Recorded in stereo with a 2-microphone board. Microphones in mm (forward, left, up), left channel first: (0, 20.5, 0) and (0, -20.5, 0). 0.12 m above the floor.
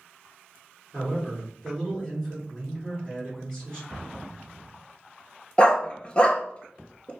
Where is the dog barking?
30° left (ahead or behind), 0.5 m.